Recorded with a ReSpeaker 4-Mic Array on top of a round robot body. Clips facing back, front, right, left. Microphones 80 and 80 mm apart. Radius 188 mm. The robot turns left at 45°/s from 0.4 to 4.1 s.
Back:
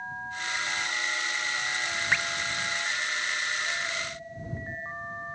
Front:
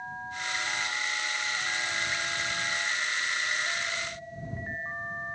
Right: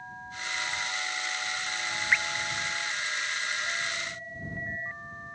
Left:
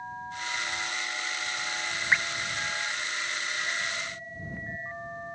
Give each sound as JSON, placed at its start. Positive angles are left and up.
{"t": 2.1, "sound": "dripping", "azimuth_deg": 155}